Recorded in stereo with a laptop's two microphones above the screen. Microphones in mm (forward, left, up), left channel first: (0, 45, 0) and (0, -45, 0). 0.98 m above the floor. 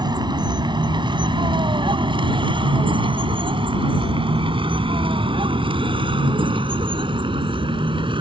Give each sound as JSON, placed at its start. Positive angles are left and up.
{"t": 0.0, "sound": "a vehicle", "side_deg": -55}